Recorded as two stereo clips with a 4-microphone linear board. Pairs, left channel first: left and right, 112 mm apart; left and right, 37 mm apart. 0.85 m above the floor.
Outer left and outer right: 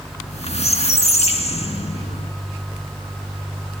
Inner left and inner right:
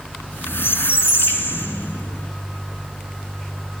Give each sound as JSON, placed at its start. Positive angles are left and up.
{"t": 0.2, "sound": "a squeak", "side_deg": 70, "distance_m": 2.5}